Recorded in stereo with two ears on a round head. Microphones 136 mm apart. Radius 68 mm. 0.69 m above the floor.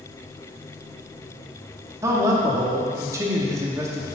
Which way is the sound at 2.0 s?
20° right (ahead or behind).